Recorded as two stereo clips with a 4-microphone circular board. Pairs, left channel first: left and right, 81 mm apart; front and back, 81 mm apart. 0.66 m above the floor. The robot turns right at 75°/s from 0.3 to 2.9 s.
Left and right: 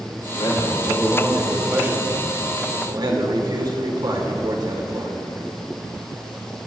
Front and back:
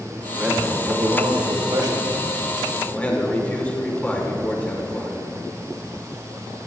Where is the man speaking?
100° left, 2.5 m; by 5.2 s 70° right, 2.5 m.